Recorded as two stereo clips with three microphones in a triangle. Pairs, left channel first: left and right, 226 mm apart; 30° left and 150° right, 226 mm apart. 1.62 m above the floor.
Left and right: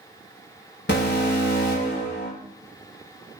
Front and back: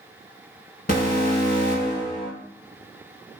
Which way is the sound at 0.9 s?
70° left.